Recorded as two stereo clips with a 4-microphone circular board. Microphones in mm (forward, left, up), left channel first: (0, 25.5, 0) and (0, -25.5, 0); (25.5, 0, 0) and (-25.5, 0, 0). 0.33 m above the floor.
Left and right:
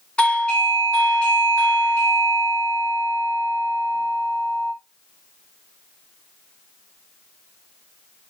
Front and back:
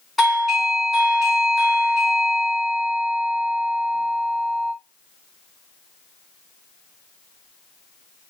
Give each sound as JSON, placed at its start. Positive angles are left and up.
{"t": 0.2, "sound": "a doorbell", "azimuth_deg": 95, "distance_m": 1.7}